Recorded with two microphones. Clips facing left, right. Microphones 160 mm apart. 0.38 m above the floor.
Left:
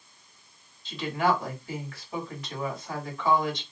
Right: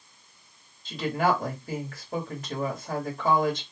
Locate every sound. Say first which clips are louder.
0.8 s a woman speaking: right 1 dB; 45° right (ahead or behind), 1.5 m